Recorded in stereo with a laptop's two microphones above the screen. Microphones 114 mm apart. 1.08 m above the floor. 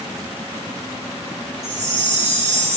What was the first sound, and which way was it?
A chime, 65° right (ahead or behind).